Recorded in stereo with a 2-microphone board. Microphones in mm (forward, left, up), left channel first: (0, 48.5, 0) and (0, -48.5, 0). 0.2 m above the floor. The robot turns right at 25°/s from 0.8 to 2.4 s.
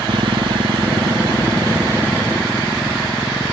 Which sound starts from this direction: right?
A motorcycle, at 0.0 s.